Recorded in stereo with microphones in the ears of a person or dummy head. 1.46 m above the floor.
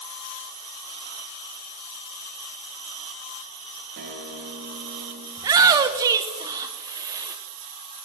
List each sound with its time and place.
4.0 s a guitar: 45° right (ahead or behind), 1.1 m
5.4 s a shout: 25° right (ahead or behind), 0.6 m